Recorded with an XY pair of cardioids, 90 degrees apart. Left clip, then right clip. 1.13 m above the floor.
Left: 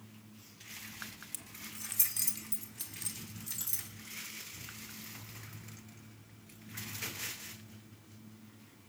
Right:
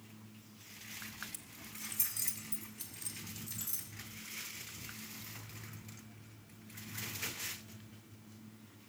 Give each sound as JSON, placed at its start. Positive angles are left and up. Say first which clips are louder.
{"t": 1.3, "sound": "keys jangling", "louder": "left 3 dB", "azimuth_deg": 50, "distance_m": 0.9}